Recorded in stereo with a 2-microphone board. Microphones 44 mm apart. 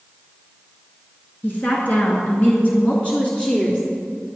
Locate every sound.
1.4 s a woman speaking: 50° left (ahead or behind), 3 m; by 3.8 s 15° left (ahead or behind), 2 m